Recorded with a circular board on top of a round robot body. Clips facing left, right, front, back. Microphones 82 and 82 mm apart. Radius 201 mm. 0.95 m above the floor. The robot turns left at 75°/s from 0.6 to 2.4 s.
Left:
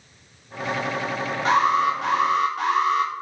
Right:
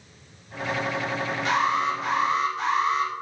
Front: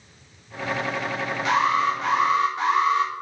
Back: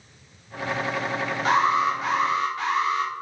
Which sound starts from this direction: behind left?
An alarm, at 1.4 s.